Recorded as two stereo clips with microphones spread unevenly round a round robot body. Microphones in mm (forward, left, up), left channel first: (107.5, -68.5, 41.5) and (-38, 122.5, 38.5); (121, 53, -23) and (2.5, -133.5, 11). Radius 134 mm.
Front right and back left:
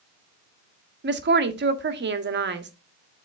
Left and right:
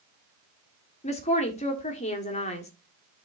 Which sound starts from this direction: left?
A woman speaking, at 1.0 s.